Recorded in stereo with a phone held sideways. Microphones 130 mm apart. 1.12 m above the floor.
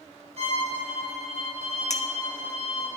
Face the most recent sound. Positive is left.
turn(degrees=65)  # may be behind; listen again after turning